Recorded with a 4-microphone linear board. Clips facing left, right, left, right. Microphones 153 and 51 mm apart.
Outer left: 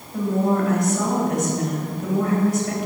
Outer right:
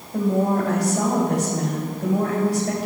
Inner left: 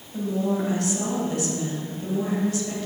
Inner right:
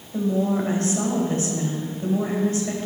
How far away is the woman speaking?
About 2.5 m.